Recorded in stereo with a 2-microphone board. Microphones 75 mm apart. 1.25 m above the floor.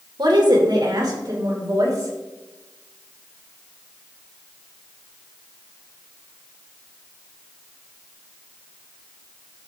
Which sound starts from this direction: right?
A woman speaking, at 0.2 s.